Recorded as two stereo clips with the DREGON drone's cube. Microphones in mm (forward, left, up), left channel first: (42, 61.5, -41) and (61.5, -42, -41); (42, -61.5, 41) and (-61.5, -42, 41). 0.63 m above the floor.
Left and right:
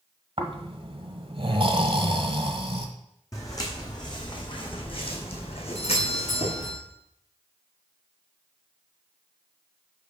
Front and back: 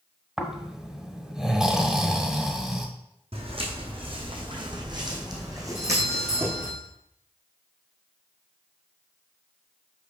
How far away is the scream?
No scream in this recording.